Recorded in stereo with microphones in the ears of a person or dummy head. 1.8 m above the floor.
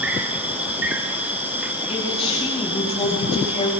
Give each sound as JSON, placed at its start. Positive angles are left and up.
{"t": 0.0, "sound": "an insect", "side_deg": -15, "distance_m": 1.8}
{"t": 1.9, "sound": "a man speaking", "side_deg": 25, "distance_m": 5.0}